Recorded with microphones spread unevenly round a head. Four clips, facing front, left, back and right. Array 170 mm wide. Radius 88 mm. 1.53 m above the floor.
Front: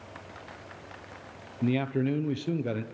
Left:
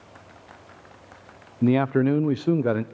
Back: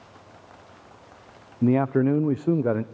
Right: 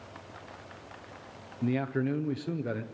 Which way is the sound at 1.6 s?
130° left.